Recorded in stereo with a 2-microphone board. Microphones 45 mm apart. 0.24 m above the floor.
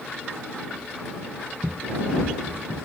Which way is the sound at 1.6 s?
55° right (ahead or behind).